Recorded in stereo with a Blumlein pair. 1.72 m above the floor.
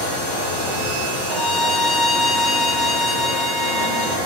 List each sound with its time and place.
1.3 s a violin: 5° left, 2 m